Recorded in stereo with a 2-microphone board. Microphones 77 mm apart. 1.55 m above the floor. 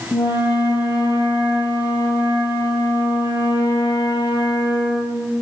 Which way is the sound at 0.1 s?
65° left (ahead or behind).